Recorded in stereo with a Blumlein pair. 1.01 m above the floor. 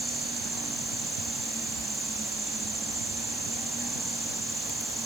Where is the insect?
10° right.